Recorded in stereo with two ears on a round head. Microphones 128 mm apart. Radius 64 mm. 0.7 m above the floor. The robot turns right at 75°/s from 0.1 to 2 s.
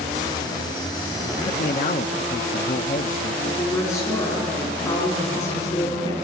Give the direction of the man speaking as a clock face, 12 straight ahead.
10 o'clock.